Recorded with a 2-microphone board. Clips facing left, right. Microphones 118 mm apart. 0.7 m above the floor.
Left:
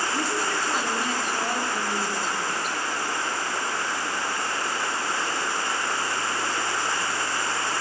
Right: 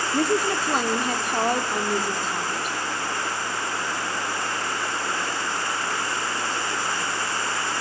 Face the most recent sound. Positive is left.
turn(degrees=-50)  # may be behind; listen again after turning